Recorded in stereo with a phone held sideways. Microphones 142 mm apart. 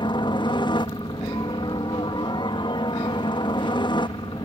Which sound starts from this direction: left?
A helicopter, at 0.0 s.